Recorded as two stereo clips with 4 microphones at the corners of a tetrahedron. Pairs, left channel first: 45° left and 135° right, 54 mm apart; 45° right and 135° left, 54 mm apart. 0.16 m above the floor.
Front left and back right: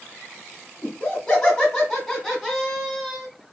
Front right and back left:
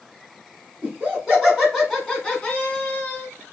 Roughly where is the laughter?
Left.